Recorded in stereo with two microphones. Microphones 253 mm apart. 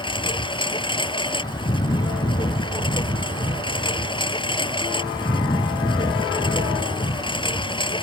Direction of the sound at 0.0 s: 20° left (ahead or behind).